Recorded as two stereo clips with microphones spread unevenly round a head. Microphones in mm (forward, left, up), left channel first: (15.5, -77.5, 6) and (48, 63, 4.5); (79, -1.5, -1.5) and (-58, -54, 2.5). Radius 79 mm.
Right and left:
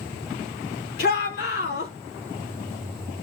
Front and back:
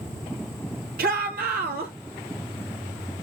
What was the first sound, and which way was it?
A shout, 135° right.